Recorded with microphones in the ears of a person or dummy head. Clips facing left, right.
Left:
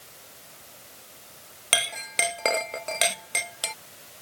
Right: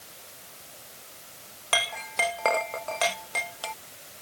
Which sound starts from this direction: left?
A clink, at 1.7 s.